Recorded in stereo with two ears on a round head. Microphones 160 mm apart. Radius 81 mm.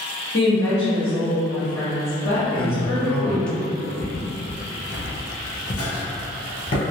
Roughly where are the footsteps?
Centre.